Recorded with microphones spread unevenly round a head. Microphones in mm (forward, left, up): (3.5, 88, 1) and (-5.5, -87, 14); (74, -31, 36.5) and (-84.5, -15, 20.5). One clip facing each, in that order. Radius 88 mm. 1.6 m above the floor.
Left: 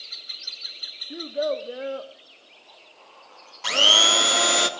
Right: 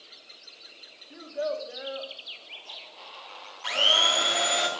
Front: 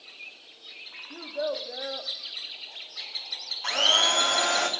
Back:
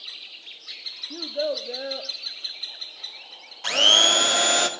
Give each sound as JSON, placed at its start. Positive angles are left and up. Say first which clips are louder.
{"t": 1.1, "sound": "a child speaking", "louder": "left 5 dB, back 3 dB", "azimuth_deg": 110, "distance_m": 0.6}
{"t": 3.6, "sound": "a blender", "louder": "left 4 dB, back 4 dB", "azimuth_deg": 120, "distance_m": 0.9}